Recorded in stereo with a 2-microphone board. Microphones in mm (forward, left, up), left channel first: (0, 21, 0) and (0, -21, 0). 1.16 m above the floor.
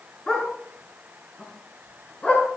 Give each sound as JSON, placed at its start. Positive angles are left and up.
{"t": 0.3, "sound": "a dog barking", "side_deg": 20, "distance_m": 5.0}